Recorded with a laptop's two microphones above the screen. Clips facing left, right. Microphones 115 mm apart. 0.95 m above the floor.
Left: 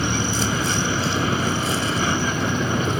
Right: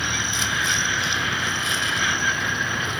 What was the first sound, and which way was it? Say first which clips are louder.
A vehicle: left 6 dB; 35° left (ahead or behind).